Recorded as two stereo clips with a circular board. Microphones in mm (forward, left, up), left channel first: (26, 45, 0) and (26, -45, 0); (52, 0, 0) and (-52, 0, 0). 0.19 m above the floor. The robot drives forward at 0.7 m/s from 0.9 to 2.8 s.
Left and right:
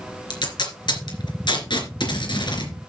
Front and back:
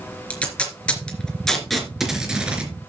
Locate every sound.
0.3 s tape being pulled: 75° left, 3 m; by 2.7 s 105° left, 3 m